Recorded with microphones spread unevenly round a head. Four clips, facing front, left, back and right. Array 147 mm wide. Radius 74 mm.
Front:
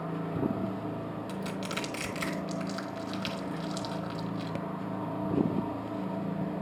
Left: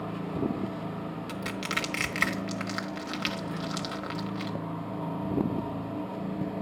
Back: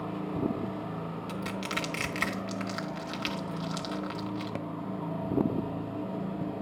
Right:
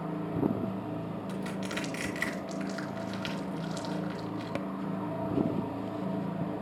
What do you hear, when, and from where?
1.3 s crushing: 75° left, 1.4 m